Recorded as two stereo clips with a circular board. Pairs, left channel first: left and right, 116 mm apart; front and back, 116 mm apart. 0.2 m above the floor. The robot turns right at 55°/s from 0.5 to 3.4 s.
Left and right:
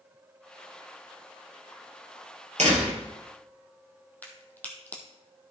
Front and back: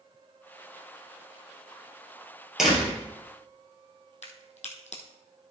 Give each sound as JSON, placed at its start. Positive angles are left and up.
{"t": 2.6, "sound": "a door slam", "azimuth_deg": -95, "distance_m": 3.5}
{"t": 4.2, "sound": "a crack", "azimuth_deg": 15, "distance_m": 1.8}